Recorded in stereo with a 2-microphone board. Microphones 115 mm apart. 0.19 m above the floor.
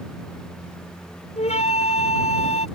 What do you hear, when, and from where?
1.4 s a flute: 75° left (ahead or behind)